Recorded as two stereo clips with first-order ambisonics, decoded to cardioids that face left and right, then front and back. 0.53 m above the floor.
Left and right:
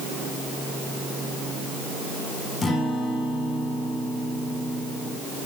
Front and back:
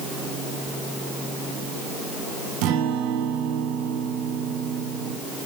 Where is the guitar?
160° left, 2.5 m.